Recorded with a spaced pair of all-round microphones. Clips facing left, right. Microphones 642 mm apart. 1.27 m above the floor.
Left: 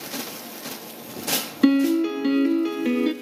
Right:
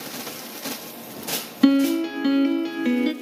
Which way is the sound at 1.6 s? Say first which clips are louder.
Even; 20° right (ahead or behind).